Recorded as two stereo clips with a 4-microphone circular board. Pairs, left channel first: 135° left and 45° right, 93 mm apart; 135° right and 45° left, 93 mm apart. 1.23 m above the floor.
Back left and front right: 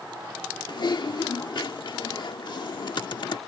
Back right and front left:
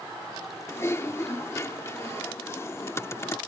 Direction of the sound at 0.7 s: 165° left.